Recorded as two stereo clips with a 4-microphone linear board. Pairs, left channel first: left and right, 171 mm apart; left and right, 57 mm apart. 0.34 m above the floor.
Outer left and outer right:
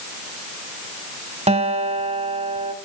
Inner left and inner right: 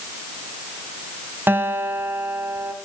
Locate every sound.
1.5 s a guitar: 40° right (ahead or behind), 1.1 m